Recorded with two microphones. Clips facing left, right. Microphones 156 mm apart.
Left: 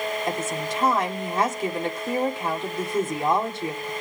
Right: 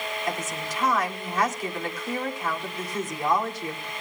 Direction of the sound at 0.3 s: 25° left (ahead or behind).